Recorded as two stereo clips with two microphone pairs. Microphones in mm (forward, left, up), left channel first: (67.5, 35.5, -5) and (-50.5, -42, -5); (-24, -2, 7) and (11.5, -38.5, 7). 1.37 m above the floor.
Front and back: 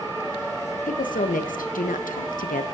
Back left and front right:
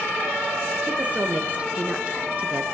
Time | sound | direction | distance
0.9 | a woman speaking | 15° left | 1.1 m